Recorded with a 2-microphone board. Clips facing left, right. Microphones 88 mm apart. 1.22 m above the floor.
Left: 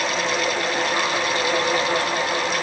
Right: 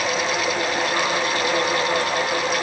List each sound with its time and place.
Only background noise.